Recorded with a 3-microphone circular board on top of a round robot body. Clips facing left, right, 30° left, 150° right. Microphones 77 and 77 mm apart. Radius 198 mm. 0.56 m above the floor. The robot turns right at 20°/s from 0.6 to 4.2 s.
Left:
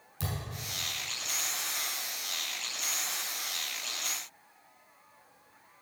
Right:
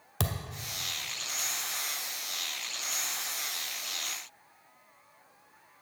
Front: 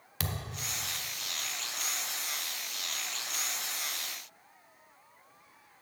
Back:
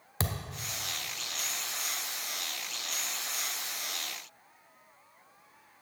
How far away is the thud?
About 0.8 m.